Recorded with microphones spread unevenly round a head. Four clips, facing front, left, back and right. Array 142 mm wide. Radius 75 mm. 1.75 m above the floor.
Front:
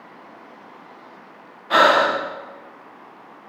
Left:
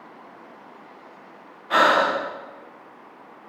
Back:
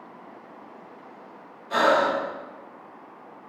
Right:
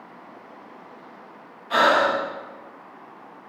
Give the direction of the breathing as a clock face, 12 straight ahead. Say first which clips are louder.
Even, front 5 dB; 11 o'clock.